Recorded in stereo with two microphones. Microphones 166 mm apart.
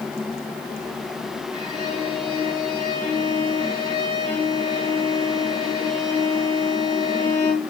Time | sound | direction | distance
1.5 | a violin | 30° left (ahead or behind) | 7 m